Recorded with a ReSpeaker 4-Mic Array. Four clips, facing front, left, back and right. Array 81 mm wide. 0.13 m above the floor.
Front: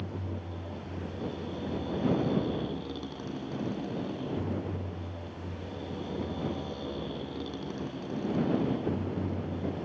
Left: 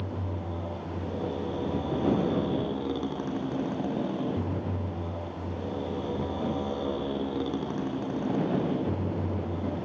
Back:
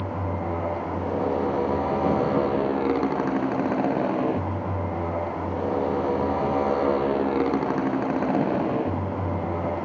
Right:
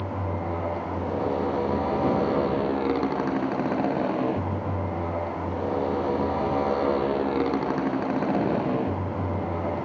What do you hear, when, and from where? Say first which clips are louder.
0.0 s a motorcycle: right 6 dB, back 11 dB; 150° right